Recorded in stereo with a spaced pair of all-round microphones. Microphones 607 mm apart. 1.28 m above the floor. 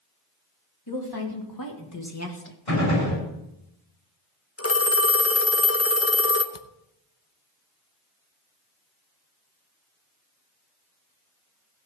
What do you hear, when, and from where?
0.9 s a woman speaking: 40° left (ahead or behind), 3.5 m; by 2.6 s 15° left (ahead or behind), 1.4 m
2.7 s a gunshot: 65° left (ahead or behind), 6.5 m
4.6 s a phone ringing: 25° left (ahead or behind), 0.8 m
6.5 s a camera shutter: 55° left (ahead or behind), 0.9 m